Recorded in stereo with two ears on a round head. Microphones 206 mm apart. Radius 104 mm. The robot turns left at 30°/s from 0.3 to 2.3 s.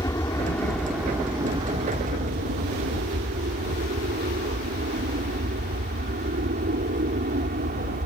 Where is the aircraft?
15° left; by 8.1 s 45° right.